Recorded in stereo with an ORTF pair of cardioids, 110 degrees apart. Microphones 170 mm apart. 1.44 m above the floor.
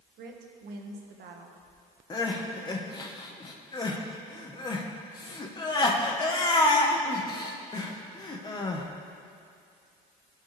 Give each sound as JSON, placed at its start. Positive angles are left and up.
{"t": 0.2, "sound": "a woman speaking", "azimuth_deg": -65, "distance_m": 1.6}
{"t": 2.1, "sound": "crying", "azimuth_deg": 25, "distance_m": 1.2}